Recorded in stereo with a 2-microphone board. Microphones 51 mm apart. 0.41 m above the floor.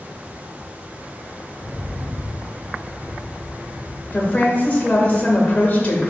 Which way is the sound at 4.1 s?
30° left (ahead or behind).